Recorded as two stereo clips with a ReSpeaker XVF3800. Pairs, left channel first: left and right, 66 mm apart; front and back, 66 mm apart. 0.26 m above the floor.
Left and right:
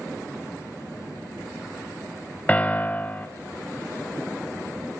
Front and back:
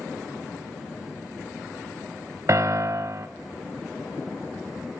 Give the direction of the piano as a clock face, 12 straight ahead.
7 o'clock.